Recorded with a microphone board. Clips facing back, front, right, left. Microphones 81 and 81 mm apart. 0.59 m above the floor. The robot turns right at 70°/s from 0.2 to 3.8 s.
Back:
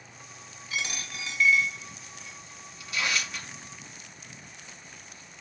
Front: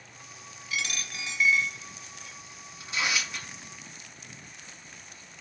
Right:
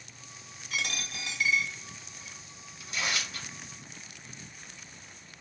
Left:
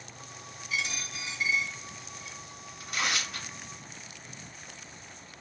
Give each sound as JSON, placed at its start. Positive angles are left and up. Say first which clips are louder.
{"t": 0.7, "sound": "a dropped coin", "louder": "even, left 1 dB", "azimuth_deg": -125, "distance_m": 1.3}
{"t": 2.8, "sound": "tearing paper", "louder": "even, left 2 dB", "azimuth_deg": 55, "distance_m": 1.1}